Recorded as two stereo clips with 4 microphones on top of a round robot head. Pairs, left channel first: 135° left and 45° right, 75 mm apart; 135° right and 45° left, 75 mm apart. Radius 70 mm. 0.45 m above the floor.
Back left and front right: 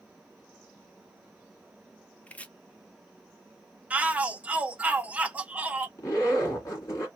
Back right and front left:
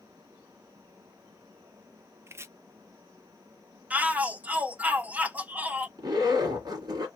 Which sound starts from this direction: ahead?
A shout, at 3.9 s.